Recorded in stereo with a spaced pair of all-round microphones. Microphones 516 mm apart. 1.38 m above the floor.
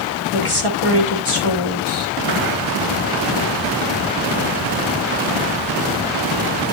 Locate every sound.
0.3 s a woman speaking: 70° left (ahead or behind), 3 m